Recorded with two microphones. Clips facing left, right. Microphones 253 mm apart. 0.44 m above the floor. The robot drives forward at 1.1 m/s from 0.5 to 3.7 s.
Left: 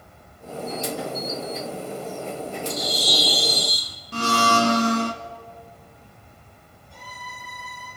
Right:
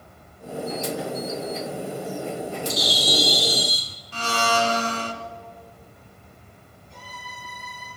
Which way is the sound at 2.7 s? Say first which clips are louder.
Right 2 dB; 75° right (ahead or behind).